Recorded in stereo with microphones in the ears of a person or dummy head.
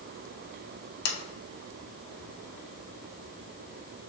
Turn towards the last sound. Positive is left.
turn(degrees=70)  # may be behind; listen again after turning